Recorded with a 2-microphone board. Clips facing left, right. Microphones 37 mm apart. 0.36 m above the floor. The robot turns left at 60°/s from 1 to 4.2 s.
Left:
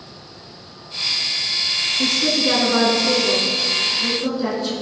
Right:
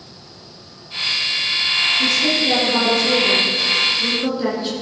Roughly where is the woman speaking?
Left.